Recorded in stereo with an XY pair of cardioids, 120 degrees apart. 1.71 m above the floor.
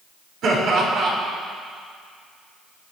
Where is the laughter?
60° right, 6 m.